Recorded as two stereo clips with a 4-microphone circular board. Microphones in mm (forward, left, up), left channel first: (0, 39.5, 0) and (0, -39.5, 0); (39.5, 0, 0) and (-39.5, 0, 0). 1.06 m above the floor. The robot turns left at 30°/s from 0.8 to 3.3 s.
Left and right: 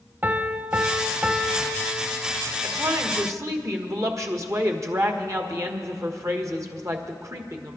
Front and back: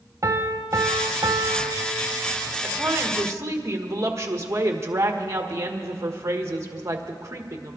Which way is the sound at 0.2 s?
150° right.